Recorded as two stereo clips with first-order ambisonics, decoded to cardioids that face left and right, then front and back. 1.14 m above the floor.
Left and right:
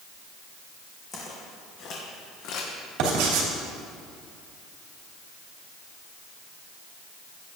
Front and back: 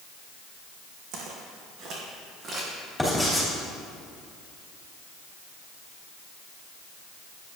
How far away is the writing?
About 2.5 m.